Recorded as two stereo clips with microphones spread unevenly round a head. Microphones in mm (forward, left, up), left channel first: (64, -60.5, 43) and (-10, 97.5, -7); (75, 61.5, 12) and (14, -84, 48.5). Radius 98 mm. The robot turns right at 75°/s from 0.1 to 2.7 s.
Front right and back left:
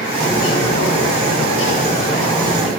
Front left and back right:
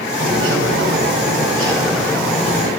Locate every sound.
0.2 s a bird: 155° right, 3.5 m; by 2.7 s 35° left, 3.5 m